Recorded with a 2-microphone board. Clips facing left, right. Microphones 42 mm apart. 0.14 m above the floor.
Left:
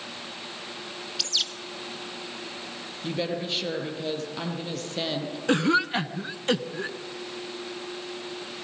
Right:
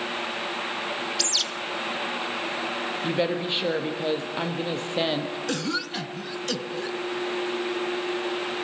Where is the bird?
5° left (ahead or behind), 1.2 m.